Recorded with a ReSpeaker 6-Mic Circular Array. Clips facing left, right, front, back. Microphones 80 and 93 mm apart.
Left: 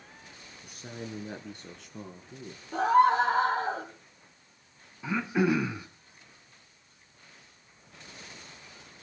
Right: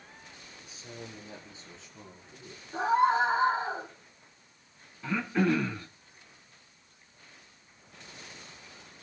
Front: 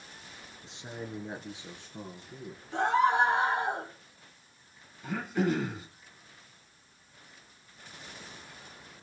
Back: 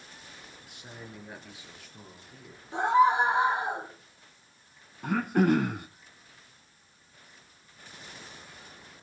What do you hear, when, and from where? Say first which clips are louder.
0.6 s a man speaking: left 5 dB, front 7 dB; 65° left, 2.5 m; by 2.6 s 60° left, 5 m
2.7 s a scream: left 3 dB, back 3 dB; 105° left, 7.5 m
5.0 s throat clearing: left 1 dB, back 5 dB; 165° left, 2.5 m